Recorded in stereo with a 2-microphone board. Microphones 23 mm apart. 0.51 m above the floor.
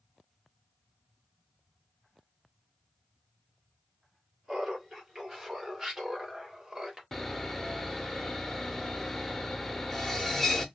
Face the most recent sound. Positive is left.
turn(degrees=15)  # may be behind; listen again after turning